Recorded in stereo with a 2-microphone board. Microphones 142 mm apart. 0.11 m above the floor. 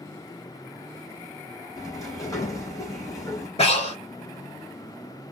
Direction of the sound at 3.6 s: 45° left (ahead or behind).